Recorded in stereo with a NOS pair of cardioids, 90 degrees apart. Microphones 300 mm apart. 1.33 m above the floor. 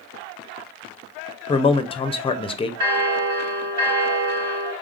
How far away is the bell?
About 1.9 m.